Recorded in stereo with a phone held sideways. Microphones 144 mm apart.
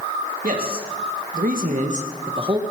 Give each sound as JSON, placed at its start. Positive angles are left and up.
{"t": 0.4, "sound": "a man speaking", "side_deg": -85, "distance_m": 3.0}